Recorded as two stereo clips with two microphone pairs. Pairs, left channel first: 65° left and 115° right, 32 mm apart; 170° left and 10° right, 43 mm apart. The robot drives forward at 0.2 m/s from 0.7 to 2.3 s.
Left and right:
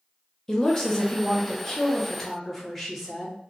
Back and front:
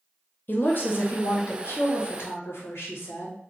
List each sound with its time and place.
0.5 s a woman speaking: 135° left, 0.7 m; by 3.4 s 150° left, 1.0 m